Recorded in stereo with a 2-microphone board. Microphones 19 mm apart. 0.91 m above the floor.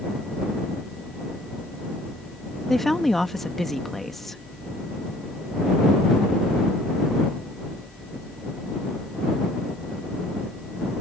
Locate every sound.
2.7 s a woman speaking: 10° left (ahead or behind)